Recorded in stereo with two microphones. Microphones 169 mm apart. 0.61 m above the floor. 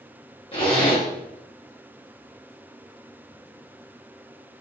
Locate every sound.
0.5 s a zipper: 35° left (ahead or behind), 1.7 m